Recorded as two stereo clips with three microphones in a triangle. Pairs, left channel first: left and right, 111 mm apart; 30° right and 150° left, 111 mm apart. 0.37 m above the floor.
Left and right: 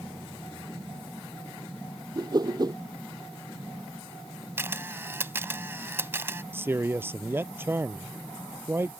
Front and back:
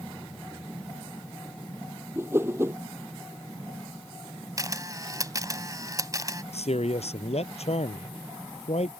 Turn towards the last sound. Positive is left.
turn(degrees=-20)